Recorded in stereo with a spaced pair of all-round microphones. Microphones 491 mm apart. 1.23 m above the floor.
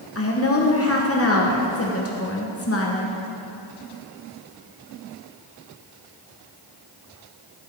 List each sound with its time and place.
0.1 s a woman speaking: 30° left (ahead or behind), 1.0 m